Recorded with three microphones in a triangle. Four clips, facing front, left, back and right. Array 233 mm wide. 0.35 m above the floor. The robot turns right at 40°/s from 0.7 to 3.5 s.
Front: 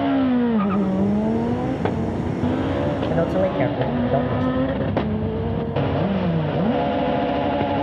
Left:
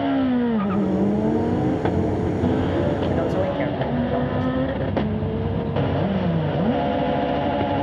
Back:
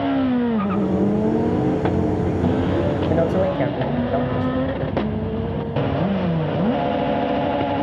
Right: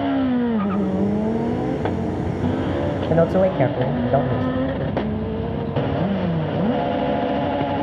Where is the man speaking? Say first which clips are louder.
Right 5 dB, back 1 dB; 100° right, 1.7 m; by 4.6 s 85° right, 1.7 m.